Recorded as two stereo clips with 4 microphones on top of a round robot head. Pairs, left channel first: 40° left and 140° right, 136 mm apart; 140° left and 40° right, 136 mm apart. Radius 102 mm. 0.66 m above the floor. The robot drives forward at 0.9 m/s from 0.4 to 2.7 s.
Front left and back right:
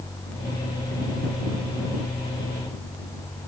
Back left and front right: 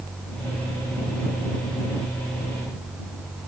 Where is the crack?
No crack in this recording.